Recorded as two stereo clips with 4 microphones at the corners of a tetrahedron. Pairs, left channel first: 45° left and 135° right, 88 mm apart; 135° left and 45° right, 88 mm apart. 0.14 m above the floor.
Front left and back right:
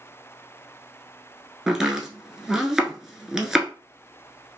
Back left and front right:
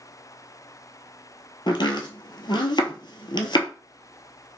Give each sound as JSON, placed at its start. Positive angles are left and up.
{"t": 1.7, "sound": "chopping", "azimuth_deg": 140, "distance_m": 0.9}